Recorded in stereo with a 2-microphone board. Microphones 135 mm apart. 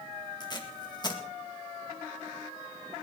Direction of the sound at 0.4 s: 30° left (ahead or behind).